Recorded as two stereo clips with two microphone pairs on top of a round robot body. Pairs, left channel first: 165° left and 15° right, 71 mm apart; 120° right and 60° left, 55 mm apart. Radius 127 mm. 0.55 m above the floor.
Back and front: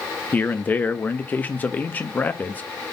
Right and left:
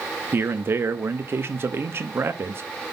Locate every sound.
0.3 s a man speaking: 100° left, 0.8 m